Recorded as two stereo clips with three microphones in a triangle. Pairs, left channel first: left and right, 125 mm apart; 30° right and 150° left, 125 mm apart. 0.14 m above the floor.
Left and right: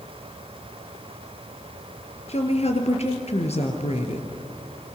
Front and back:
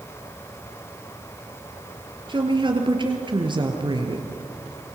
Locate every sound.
2.3 s a woman speaking: 105° left, 3 m